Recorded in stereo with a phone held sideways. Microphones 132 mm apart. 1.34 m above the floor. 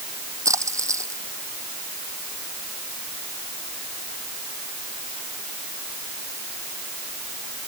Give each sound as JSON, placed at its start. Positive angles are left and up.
{"t": 0.5, "sound": "a splash", "side_deg": -25}